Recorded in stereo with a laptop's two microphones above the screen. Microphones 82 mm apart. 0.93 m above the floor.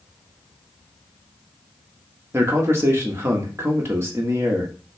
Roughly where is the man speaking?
Right.